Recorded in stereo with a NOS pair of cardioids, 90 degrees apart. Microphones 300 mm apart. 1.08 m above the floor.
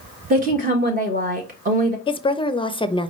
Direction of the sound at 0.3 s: 30° right.